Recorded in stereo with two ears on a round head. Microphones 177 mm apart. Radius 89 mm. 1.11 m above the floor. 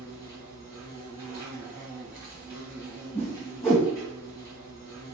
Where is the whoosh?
10° left (ahead or behind), 1.4 m.